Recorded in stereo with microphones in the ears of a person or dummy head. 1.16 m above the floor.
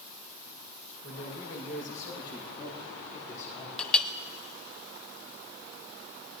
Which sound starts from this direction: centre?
A clink, at 3.8 s.